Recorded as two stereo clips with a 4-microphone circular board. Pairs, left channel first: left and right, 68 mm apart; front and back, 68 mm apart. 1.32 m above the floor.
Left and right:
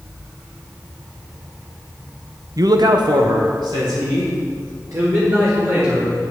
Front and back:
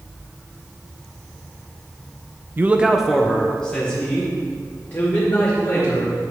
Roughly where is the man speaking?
Behind right.